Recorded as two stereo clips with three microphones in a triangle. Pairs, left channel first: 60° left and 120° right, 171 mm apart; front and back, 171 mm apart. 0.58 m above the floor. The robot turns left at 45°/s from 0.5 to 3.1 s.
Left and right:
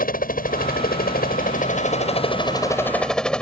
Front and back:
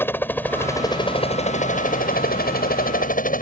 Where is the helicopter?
75° left; by 3.4 s 25° right.